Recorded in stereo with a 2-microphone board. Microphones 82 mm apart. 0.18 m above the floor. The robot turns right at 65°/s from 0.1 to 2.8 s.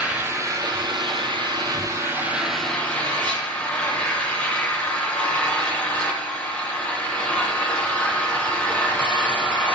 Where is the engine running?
160° right, 6 m; by 9.8 s 15° left, 6 m.